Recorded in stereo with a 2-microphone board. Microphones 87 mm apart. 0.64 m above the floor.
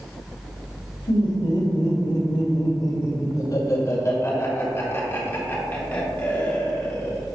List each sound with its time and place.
1.1 s laughter: 70° left (ahead or behind), 1.7 m; by 7.2 s 15° left (ahead or behind), 3.5 m